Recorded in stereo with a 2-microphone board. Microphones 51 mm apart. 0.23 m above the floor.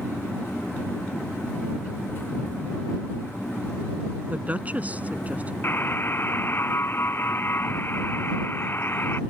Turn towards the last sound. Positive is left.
turn(degrees=50)  # may be behind; listen again after turning